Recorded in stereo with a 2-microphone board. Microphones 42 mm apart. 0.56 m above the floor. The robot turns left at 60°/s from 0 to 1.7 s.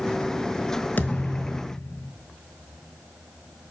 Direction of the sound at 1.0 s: 130° left.